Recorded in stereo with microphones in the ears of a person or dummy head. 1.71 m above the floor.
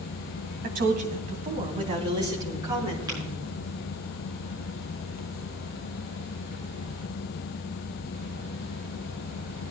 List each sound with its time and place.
0.6 s a woman speaking: 55° right (ahead or behind), 2 m; by 3.5 s 10° right (ahead or behind), 4 m
3.1 s tapping: 20° right (ahead or behind), 6 m